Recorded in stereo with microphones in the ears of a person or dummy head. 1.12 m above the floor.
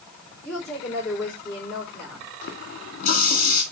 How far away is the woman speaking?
About 4.5 m.